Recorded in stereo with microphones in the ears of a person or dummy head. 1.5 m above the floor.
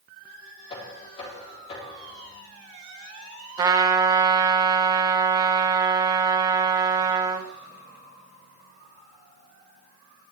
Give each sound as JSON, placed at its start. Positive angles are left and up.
{"t": 0.7, "sound": "knocking", "side_deg": 30, "distance_m": 4.0}
{"t": 3.6, "sound": "a trumpet", "side_deg": -25, "distance_m": 1.1}